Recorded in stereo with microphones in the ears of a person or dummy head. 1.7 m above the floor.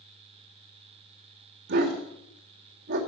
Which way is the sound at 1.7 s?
65° right (ahead or behind).